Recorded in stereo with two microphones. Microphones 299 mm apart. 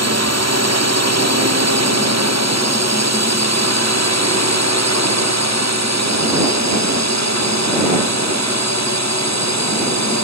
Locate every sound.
0.0 s a drone: 65° right (ahead or behind); by 10.2 s 70° right (ahead or behind)